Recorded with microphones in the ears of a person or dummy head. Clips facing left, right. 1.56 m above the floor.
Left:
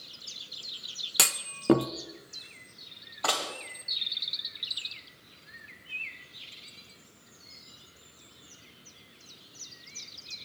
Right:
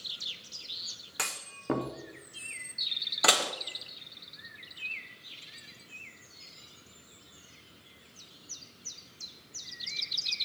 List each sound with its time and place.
1.2 s a clunk: 40° left (ahead or behind), 0.7 m
3.2 s dishes clattering: 25° right (ahead or behind), 0.7 m